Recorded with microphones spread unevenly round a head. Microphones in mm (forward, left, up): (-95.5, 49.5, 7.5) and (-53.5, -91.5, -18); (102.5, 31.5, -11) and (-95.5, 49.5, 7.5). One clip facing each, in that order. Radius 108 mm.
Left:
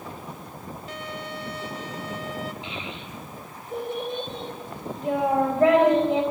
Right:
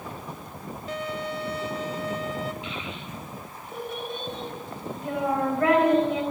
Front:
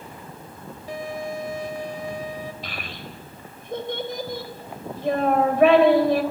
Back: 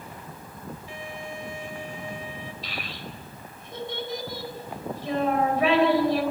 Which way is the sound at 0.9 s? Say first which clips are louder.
Right 6 dB, front 11 dB; 65° right.